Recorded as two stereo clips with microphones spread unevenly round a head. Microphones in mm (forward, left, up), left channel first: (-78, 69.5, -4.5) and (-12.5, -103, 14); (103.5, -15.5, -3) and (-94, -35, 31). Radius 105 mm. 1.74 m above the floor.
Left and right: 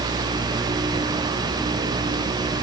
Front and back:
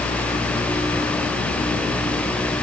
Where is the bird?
I don't hear a bird.